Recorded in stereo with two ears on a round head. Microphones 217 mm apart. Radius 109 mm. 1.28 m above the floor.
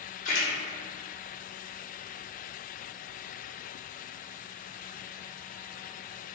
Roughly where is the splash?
Left.